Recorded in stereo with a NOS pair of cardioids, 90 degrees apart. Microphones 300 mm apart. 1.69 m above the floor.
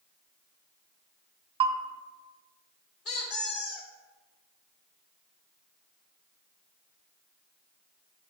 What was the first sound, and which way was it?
A bell, 20° right.